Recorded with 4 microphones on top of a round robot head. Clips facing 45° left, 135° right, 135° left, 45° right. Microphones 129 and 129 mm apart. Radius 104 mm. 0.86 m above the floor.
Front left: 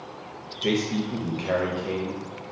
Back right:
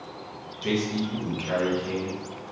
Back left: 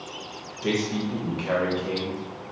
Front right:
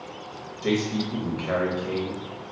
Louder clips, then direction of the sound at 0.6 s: Front left 2 dB, front right 1 dB; 60° left.